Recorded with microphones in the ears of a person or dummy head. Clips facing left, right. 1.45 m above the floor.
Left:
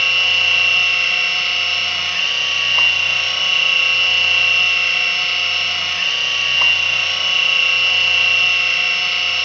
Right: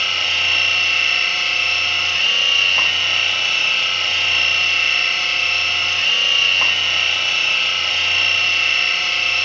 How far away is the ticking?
I don't hear ticking.